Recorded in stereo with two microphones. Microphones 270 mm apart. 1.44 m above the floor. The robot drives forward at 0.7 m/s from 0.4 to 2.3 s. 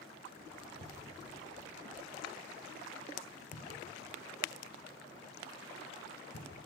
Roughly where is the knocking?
Left.